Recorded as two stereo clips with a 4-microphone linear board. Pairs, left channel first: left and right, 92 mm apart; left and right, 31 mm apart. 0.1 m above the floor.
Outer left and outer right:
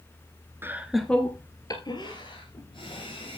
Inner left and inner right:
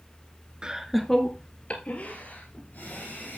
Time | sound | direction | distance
0.6 | laughter | 25° right (ahead or behind) | 1.2 m